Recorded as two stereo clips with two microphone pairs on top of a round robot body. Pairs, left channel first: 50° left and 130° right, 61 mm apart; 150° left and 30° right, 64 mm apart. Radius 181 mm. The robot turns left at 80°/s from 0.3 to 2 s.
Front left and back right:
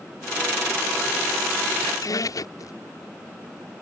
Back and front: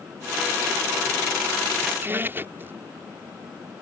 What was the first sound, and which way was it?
A squeak, 50° left.